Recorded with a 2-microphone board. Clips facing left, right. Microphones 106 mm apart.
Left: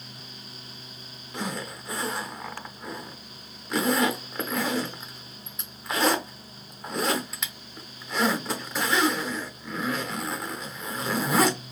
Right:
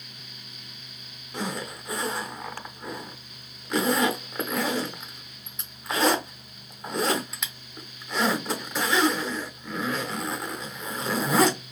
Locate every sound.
1.3 s a zipper: centre (ahead or behind), 0.6 m